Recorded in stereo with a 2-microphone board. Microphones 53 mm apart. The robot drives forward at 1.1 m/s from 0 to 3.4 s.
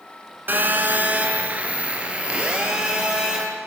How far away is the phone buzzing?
About 2 m.